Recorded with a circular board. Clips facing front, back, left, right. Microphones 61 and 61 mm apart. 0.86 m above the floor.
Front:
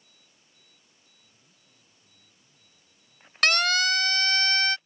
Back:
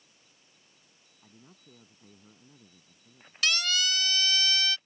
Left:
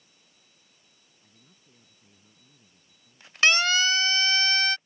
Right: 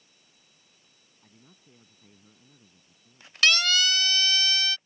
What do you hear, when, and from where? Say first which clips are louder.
1.2 s a man speaking: back 8 dB, right 5 dB; 155° right; by 3.3 s 165° right
3.4 s a siren: front 6 dB, left 2 dB; 25° left; by 4.8 s 45° left